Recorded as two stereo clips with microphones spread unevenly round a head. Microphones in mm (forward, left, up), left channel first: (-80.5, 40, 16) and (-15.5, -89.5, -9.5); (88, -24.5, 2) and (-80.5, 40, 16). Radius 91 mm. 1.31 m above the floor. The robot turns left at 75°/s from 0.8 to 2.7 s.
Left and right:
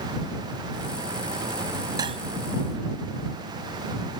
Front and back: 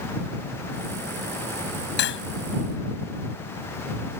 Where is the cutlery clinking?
10° left; by 2.2 s 5° right.